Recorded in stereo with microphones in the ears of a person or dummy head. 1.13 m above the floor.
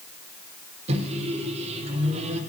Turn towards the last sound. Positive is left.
turn(degrees=-35)  # may be behind; listen again after turning